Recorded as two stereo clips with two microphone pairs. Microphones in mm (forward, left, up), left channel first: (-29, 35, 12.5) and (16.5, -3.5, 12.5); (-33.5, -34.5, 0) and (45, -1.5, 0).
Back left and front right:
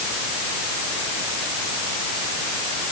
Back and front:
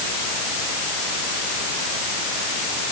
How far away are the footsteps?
No footsteps in this recording.